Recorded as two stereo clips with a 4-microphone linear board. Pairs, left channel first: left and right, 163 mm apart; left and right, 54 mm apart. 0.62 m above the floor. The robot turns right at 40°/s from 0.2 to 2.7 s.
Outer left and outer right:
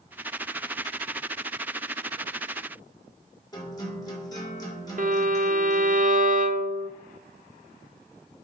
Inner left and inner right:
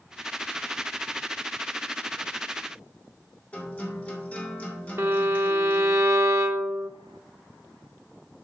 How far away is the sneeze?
I don't hear a sneeze.